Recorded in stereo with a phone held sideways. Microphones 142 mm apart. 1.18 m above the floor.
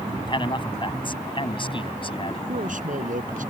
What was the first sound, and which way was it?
A man speaking, 35° left (ahead or behind).